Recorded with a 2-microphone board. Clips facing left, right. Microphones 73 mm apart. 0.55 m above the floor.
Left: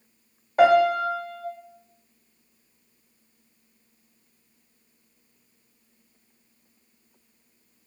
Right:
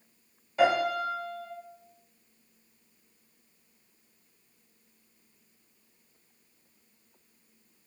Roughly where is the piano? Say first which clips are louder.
Left 8 dB; left.